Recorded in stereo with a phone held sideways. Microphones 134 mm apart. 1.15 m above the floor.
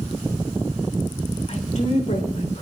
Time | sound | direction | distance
1.5 | a woman speaking | 60° left (ahead or behind) | 3.5 m